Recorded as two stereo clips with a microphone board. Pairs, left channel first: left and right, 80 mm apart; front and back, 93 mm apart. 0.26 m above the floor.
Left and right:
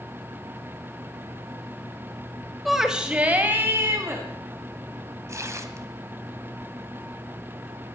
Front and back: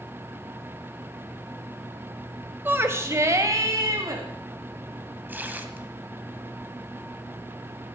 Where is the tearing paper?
120° right, 1.5 m.